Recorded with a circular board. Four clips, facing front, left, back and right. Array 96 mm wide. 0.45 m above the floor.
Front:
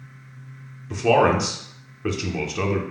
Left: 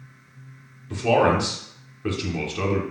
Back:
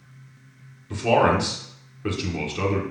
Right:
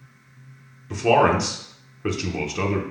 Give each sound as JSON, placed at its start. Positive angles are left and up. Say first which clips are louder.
{"t": 0.9, "sound": "a man speaking", "louder": "right 1 dB, front 1 dB", "azimuth_deg": -45, "distance_m": 0.7}